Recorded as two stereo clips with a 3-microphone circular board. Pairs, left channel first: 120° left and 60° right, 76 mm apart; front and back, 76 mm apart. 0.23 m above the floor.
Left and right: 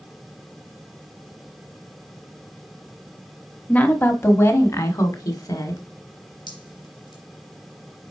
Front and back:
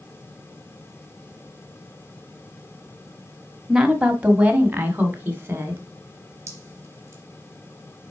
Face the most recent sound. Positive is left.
turn(degrees=125)